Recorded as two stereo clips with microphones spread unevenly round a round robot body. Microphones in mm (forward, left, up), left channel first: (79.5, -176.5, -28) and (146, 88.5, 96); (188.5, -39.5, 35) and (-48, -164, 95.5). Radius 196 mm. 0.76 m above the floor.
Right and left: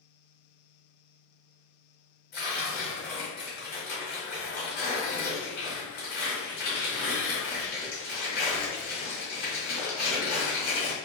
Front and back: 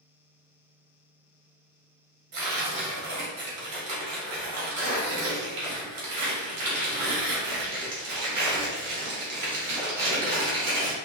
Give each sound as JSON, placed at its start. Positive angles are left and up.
{"t": 2.3, "sound": "tearing paper", "azimuth_deg": -155, "distance_m": 1.4}